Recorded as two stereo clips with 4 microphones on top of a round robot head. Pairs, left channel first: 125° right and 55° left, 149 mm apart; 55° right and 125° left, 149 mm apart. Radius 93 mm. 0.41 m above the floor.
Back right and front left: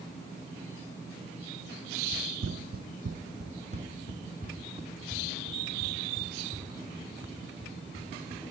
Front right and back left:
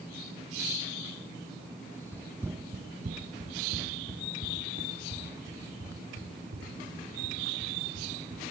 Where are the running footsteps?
20° left, 0.7 m; by 8.4 s 115° left, 6 m.